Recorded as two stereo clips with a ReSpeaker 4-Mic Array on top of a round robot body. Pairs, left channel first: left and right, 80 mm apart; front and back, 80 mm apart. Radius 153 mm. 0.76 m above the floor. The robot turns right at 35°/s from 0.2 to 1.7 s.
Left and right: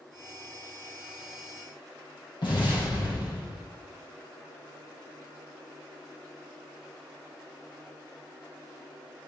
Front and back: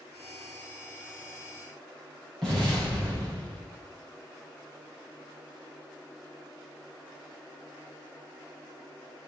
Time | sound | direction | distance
2.4 | an explosion | 80° left | 4.5 m